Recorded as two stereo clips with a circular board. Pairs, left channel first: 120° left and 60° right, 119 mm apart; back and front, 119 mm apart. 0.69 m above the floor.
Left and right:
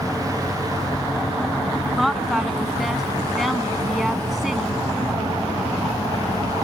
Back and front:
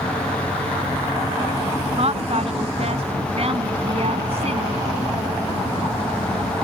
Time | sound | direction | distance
2.0 | a woman speaking | 30° left | ?